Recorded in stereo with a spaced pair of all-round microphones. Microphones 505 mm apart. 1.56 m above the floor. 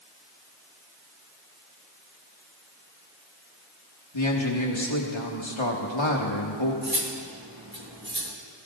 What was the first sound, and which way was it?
A man speaking, 60° left (ahead or behind).